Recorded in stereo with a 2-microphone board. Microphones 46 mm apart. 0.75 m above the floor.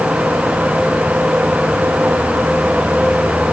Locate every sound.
Only background noise.